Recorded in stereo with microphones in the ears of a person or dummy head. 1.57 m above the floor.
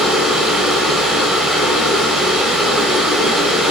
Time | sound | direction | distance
0.0 | running water | 5° right (ahead or behind) | 2.5 m